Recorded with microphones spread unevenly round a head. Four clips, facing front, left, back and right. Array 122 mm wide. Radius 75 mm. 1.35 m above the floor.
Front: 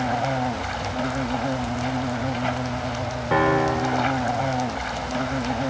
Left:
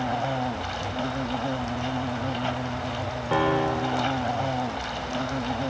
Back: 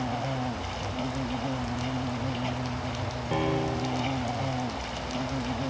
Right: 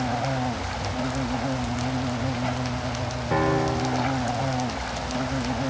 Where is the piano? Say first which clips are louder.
Even, front 8 dB; 10° left.